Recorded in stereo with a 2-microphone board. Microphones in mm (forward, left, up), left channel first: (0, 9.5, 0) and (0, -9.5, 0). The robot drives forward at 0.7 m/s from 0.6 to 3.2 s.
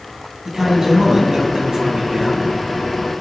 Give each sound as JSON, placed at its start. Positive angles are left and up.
{"t": 0.5, "sound": "a man speaking", "side_deg": -30, "distance_m": 3.5}